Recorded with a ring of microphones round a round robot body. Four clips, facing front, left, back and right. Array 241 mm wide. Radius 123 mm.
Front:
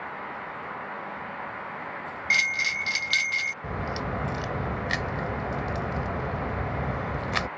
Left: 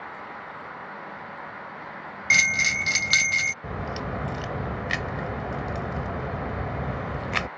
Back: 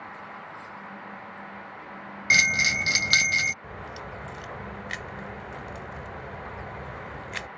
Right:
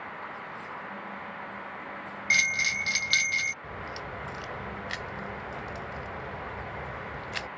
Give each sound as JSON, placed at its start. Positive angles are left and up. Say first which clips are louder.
{"t": 2.3, "sound": "a bell", "louder": "left 5 dB, back 4 dB", "azimuth_deg": 145}
{"t": 3.6, "sound": "a crack", "louder": "left 6 dB, front 8 dB", "azimuth_deg": 45}